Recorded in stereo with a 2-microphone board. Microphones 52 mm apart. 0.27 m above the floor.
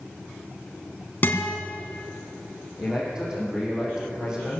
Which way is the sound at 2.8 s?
15° right (ahead or behind).